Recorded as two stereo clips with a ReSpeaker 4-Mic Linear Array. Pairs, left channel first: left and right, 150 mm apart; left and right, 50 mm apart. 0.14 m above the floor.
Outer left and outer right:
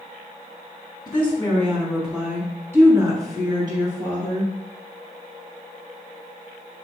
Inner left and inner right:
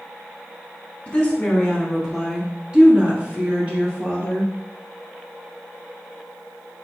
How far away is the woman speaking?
About 1.3 m.